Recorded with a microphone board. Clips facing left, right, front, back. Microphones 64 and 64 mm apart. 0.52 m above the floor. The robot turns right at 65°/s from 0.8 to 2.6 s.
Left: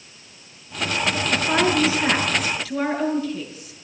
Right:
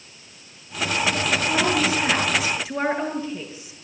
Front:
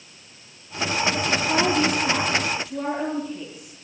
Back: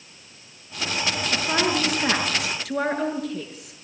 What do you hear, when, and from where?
1.3 s a woman speaking: 120° left, 7.5 m; by 3.7 s 155° right, 7.5 m